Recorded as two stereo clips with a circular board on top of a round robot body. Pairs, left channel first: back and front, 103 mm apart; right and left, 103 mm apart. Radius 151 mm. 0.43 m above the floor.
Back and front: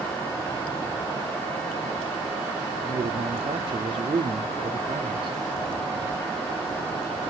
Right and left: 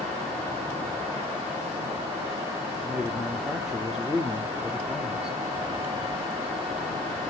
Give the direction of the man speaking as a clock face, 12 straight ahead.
12 o'clock.